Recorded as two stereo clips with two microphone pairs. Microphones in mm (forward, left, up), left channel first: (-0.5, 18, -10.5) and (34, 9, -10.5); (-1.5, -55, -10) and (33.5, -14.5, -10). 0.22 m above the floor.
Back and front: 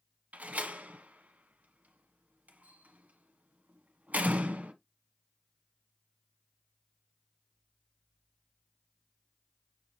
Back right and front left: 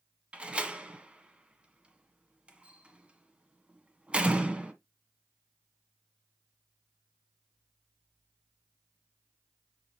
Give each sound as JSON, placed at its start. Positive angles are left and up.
{"t": 0.3, "sound": "a door slam", "azimuth_deg": -15, "distance_m": 1.3}